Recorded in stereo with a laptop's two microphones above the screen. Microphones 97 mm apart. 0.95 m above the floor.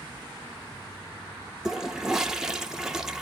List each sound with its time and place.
1.6 s a toilet flushing: 5° right (ahead or behind), 0.5 m